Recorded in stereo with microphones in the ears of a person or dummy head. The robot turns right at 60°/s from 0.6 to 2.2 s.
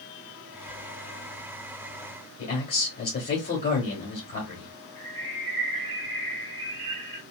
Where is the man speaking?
45° left (ahead or behind), 1.3 m.